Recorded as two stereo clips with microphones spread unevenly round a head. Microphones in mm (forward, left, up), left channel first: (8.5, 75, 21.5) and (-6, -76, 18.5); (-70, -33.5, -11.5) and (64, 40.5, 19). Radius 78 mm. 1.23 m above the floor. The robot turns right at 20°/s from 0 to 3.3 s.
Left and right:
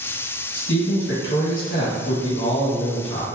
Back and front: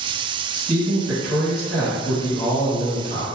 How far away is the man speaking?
About 1.6 m.